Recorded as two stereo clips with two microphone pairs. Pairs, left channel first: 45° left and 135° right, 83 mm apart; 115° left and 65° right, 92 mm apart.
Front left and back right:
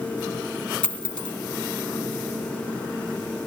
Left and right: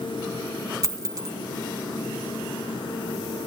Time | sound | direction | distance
0.8 | a dropped coin | 25° right | 2 m